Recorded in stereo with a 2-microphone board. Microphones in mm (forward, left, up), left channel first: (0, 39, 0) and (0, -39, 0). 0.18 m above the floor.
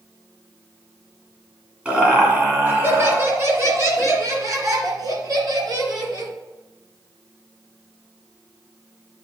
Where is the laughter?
15° right (ahead or behind), 2.0 m; by 6.3 s 60° right (ahead or behind), 3 m.